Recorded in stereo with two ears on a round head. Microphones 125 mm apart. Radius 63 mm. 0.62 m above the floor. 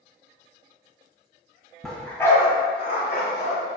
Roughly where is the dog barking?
Centre.